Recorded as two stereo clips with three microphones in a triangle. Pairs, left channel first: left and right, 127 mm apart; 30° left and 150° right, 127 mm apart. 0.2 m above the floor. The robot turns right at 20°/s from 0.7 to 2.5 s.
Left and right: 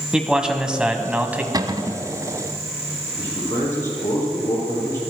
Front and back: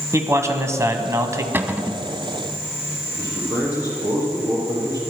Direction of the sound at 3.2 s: 155° left.